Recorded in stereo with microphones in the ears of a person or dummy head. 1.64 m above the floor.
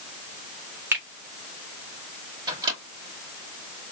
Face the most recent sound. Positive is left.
turn(degrees=-20)  # may be behind; listen again after turning